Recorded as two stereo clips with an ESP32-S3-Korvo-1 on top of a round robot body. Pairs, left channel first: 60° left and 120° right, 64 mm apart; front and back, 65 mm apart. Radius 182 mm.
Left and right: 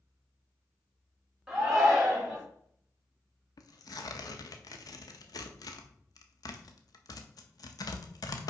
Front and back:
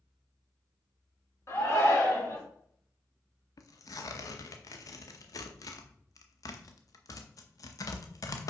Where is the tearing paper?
35° left, 0.7 m.